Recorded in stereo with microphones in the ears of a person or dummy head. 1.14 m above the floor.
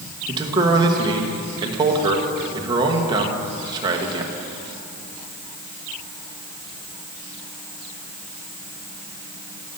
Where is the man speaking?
20° right (ahead or behind), 1.1 m.